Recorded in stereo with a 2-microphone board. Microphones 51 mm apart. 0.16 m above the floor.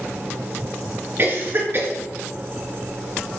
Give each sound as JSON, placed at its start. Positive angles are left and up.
{"t": 1.2, "sound": "a cough", "side_deg": -45, "distance_m": 2.5}